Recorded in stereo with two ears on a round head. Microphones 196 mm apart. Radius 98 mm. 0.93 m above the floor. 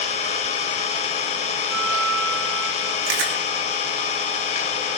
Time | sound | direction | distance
0.0 | an engine running | 30° left (ahead or behind) | 1.4 m
1.7 | a guitar | centre (ahead or behind) | 5 m
3.1 | chewing | 65° right (ahead or behind) | 2.5 m